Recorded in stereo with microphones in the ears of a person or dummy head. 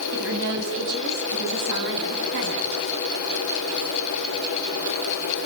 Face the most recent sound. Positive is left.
turn(degrees=-60)  # may be behind; listen again after turning